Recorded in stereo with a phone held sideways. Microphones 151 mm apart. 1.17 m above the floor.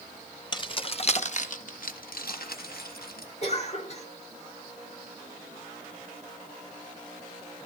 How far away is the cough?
About 5.5 m.